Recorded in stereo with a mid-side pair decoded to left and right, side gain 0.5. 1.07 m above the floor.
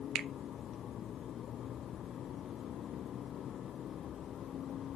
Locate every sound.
0.1 s a finger snap: 60° right, 0.7 m